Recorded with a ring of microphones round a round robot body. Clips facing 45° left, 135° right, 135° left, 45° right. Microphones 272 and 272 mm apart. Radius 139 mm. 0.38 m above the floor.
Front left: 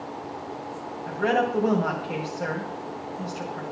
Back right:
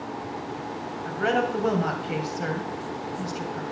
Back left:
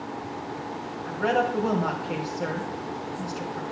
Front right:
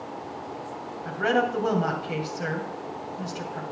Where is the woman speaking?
95° right, 2.5 m.